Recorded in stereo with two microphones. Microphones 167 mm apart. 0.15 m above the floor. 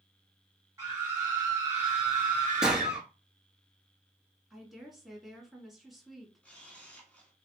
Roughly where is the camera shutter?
Centre.